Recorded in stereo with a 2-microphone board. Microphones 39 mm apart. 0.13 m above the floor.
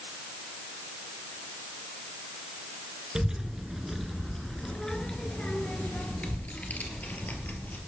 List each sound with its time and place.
3.1 s a child speaking: 20° right (ahead or behind), 1.4 m; by 7.8 s 50° left (ahead or behind), 2.5 m